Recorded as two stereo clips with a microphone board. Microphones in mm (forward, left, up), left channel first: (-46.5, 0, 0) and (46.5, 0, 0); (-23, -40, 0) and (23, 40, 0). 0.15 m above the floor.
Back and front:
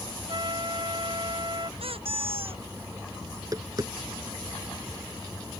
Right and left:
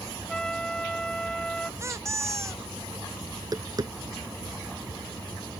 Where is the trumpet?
35° right.